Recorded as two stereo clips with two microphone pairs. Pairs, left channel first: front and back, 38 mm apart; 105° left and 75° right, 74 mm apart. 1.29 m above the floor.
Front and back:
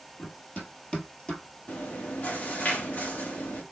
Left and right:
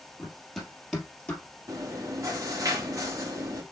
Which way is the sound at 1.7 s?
40° right.